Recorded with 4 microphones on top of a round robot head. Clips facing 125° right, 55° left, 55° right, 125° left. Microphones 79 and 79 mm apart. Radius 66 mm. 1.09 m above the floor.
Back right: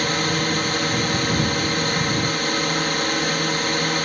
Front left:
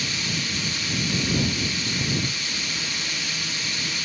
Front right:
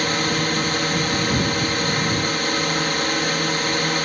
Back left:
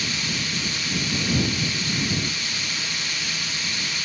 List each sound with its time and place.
0.0 s a drone: 90° right